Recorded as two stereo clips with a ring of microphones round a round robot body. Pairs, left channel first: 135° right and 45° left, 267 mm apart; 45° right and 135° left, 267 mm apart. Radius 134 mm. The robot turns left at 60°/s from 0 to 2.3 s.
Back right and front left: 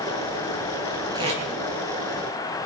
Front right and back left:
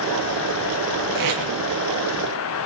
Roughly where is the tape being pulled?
Behind left.